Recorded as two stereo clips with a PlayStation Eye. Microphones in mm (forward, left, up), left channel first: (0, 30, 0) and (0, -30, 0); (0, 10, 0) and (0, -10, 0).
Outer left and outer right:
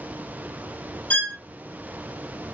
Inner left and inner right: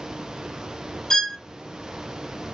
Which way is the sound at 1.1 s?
25° left (ahead or behind).